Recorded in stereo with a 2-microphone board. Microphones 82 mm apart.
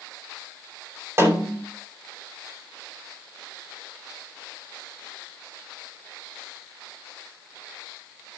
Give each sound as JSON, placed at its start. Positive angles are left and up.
{"t": 1.2, "sound": "a snare drum", "side_deg": -35, "distance_m": 3.0}